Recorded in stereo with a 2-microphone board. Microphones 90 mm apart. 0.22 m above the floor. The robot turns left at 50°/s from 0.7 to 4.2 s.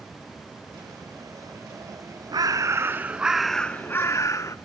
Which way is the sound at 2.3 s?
125° right.